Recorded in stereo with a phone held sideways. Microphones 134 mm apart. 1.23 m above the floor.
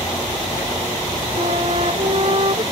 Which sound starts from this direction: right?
A flute, at 1.4 s.